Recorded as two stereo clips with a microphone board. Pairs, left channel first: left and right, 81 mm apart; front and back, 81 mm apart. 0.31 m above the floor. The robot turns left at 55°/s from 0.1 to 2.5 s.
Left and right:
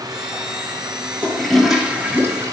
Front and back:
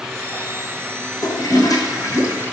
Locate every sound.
1.2 s a toilet flushing: 20° left, 1.3 m; by 2.5 s 50° right, 1.3 m